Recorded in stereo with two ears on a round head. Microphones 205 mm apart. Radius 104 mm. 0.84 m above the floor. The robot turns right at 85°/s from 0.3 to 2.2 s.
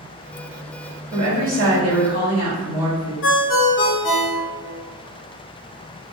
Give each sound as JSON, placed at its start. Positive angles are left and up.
{"t": 1.1, "sound": "a woman speaking", "azimuth_deg": -140, "distance_m": 1.6}
{"t": 3.2, "sound": "a ringtone", "side_deg": 55, "distance_m": 0.6}